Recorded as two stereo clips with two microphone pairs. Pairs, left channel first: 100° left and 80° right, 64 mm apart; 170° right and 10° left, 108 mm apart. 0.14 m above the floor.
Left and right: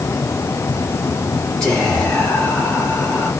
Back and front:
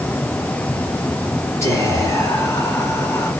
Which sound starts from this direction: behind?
Whispering, at 1.6 s.